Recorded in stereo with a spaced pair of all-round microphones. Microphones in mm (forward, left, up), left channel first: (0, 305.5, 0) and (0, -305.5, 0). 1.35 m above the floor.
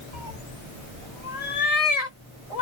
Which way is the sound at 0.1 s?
65° left (ahead or behind).